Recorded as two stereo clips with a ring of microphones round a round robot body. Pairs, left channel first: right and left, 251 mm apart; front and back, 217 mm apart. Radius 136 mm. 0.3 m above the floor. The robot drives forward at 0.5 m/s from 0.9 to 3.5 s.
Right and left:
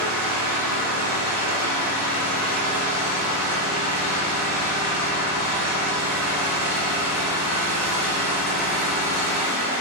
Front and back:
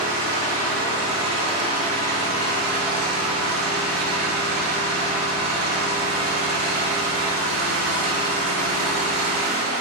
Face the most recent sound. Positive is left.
turn(degrees=150)